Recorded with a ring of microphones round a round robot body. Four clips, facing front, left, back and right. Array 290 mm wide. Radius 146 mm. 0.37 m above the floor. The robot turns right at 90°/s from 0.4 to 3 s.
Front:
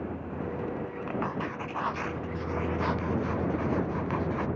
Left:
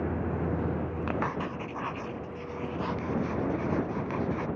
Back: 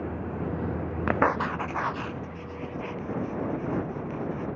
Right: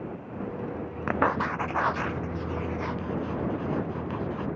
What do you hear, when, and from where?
0.0 s a vehicle: 115° left; by 4.6 s 15° right
1.1 s writing: 165° right; by 4.5 s 10° left